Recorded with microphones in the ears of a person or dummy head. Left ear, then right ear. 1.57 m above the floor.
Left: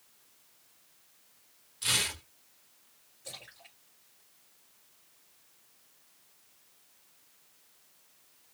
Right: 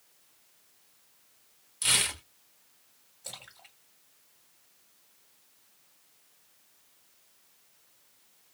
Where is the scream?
I don't hear a scream.